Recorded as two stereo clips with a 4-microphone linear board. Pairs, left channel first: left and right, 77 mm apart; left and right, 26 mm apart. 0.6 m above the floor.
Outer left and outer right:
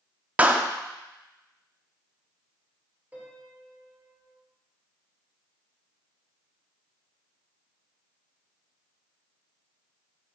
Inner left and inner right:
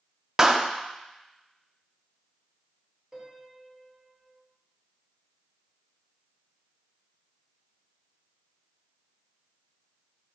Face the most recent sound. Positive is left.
turn(degrees=-20)  # may be behind; listen again after turning